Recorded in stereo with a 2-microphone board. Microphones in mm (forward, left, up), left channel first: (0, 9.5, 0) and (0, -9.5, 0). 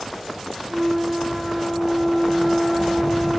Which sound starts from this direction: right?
A flute, at 0.7 s.